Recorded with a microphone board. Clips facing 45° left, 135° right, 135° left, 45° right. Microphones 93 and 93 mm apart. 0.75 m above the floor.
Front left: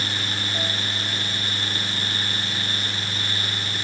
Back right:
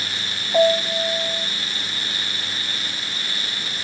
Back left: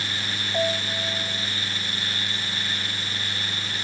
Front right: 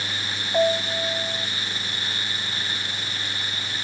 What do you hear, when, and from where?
0.5 s a piano: 115° right